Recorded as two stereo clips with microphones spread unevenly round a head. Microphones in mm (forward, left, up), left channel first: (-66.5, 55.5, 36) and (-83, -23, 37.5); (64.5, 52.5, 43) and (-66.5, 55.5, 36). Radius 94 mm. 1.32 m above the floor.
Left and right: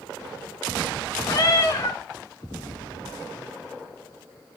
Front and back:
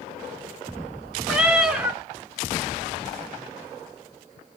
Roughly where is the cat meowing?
Left.